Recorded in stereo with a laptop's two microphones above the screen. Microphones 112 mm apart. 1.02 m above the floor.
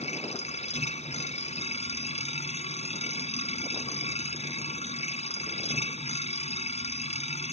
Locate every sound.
0.0 s a machine running: 75° left (ahead or behind)